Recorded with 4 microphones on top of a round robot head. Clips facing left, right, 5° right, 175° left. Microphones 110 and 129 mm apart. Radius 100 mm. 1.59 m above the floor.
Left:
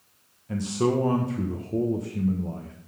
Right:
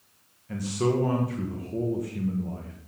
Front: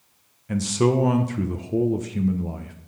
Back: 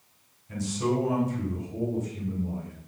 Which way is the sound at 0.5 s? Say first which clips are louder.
Left 2 dB, front 7 dB; 15° left.